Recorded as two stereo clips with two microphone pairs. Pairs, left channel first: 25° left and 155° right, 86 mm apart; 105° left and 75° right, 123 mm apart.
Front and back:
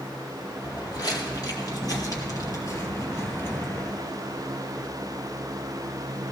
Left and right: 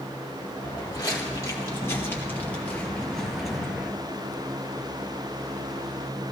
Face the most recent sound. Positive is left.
turn(degrees=-10)